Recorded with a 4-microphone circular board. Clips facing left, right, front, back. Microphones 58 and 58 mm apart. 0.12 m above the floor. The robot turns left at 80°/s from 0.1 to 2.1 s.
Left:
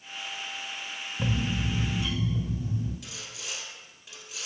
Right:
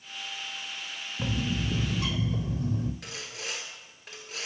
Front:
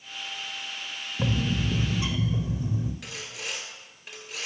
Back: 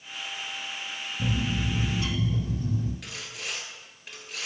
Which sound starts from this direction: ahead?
A bird, at 1.2 s.